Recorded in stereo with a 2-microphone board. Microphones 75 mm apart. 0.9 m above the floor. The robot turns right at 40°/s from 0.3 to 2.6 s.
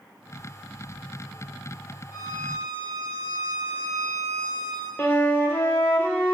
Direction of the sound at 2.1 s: 40° left (ahead or behind).